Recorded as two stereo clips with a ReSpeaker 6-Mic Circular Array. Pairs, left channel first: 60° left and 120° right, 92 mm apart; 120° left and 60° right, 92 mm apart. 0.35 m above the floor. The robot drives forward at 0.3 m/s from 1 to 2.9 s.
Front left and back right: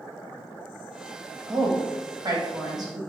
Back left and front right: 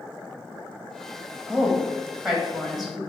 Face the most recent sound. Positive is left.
turn(degrees=-150)